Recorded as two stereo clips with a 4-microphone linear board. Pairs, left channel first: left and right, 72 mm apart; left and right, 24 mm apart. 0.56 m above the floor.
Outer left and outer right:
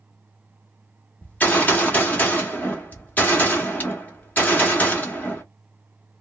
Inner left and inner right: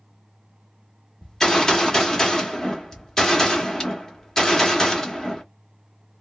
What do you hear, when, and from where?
1.2 s a gunshot: 20° left (ahead or behind), 1.1 m